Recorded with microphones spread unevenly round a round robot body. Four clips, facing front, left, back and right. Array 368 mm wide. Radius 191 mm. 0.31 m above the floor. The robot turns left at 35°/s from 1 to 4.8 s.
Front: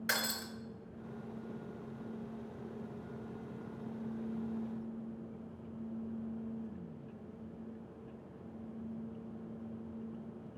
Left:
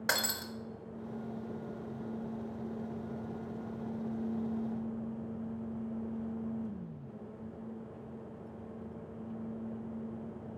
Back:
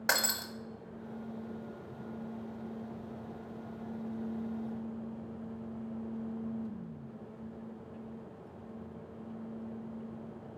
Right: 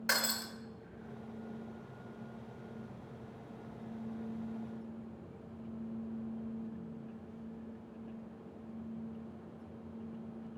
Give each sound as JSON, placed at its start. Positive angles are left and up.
{"t": 0.1, "sound": "breaking glass", "azimuth_deg": 160, "distance_m": 1.1}